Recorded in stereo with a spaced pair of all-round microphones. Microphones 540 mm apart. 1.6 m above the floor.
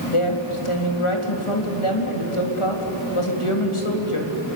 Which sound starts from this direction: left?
A woman speaking, at 0.1 s.